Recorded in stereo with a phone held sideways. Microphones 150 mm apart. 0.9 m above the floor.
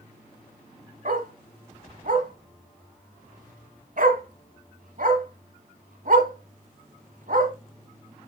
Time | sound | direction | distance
1.1 | a dog barking | 65° right (ahead or behind) | 1.5 m